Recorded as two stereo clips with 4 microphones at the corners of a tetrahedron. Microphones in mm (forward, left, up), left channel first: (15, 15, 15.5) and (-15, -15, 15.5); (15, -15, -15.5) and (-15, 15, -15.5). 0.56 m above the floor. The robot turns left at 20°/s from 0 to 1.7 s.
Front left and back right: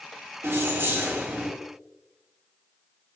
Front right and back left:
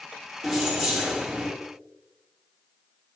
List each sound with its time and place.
0.4 s keys jangling: 135° right, 0.8 m; by 1.5 s 155° right, 0.8 m